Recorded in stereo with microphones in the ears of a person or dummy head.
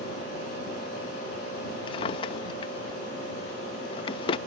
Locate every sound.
1.9 s a drawer: 25° left (ahead or behind)